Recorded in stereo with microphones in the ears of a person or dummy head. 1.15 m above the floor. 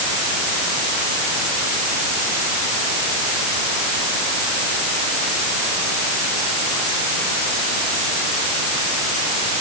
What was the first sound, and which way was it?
Only background noise.